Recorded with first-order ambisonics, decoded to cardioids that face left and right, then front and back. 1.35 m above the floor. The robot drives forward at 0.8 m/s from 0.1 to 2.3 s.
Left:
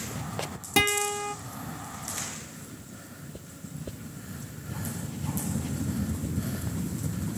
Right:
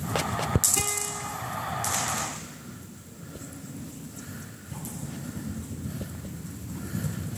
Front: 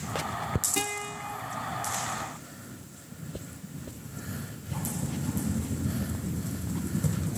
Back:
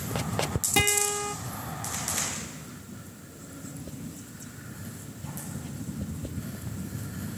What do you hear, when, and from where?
0.8 s a guitar: 125° left, 0.7 m; by 1.4 s 145° left, 1.0 m